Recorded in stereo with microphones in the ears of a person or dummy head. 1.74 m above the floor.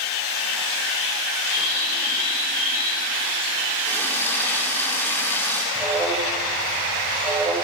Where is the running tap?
15° left (ahead or behind), 3.5 m.